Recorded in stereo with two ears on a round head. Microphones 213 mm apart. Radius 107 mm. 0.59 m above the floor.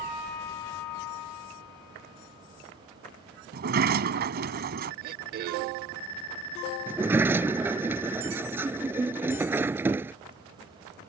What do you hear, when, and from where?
3.5 s a sliding door: 45° right (ahead or behind)
5.0 s throat clearing: 40° right (ahead or behind)
6.9 s a sliding door: 10° right (ahead or behind)